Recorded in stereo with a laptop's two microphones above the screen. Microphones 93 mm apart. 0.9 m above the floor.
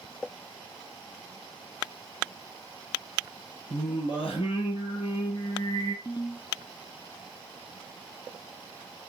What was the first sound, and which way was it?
Singing, 65° left (ahead or behind).